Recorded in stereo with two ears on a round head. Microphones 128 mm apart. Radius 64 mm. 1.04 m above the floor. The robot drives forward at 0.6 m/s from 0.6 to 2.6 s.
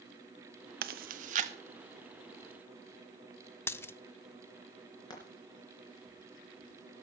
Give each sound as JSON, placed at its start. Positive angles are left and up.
{"t": 0.8, "sound": "chewing", "side_deg": -70, "distance_m": 0.9}
{"t": 3.7, "sound": "a dropped coin", "side_deg": 15, "distance_m": 0.6}
{"t": 5.1, "sound": "frying", "side_deg": 30, "distance_m": 3.5}